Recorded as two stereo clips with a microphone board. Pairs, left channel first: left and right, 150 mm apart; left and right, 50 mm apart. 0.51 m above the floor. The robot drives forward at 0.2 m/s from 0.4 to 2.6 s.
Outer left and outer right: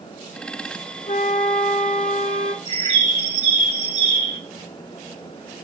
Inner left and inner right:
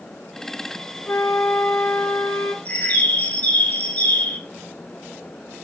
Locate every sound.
1.1 s a flute: 65° left (ahead or behind), 0.6 m; by 2.5 s 50° left (ahead or behind), 0.7 m
2.6 s a bird: 40° left (ahead or behind), 2 m